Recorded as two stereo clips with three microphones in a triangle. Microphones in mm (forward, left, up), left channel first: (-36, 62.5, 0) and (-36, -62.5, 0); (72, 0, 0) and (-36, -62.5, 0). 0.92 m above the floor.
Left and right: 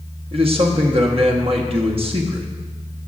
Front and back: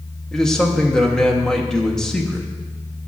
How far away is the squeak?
No squeak in this recording.